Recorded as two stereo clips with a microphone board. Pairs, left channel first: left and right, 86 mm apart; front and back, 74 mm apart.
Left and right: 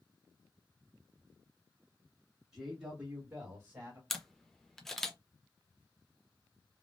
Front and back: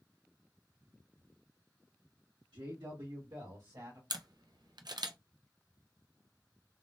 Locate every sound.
2.5 s a man speaking: 175° right, 1.4 m; by 4.0 s 145° right, 1.8 m
4.1 s a camera shutter: 175° left, 0.5 m